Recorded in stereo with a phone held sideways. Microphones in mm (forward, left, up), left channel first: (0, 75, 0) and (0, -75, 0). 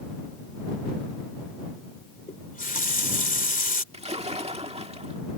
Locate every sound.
2.3 s a running tap: 65° left (ahead or behind)
3.9 s a splash: 45° right (ahead or behind)